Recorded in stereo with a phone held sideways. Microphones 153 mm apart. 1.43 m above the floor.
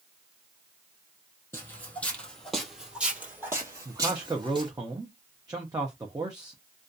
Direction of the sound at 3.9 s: 25° right (ahead or behind).